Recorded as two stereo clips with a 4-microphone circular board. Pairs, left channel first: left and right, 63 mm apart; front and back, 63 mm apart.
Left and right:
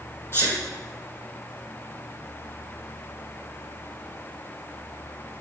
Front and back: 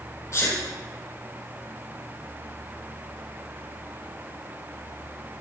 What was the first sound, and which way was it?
A sneeze, 40° left.